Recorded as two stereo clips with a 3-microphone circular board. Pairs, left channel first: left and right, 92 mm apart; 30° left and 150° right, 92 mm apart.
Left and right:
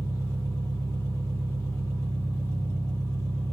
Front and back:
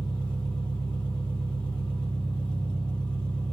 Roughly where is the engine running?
Ahead left.